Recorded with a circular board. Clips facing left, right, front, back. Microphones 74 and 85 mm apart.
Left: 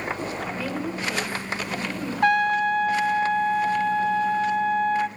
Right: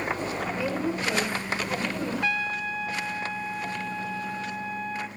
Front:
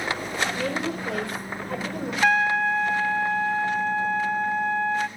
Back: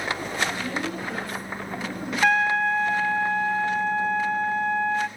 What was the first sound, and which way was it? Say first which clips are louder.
A woman speaking: right 1 dB, front 2 dB; 20° right.